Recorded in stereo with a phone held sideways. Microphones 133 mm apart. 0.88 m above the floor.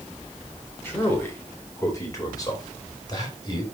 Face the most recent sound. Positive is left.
turn(degrees=35)  # may be behind; listen again after turning